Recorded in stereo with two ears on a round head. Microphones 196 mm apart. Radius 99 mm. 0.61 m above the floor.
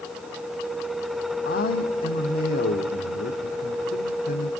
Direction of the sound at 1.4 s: 40° left (ahead or behind).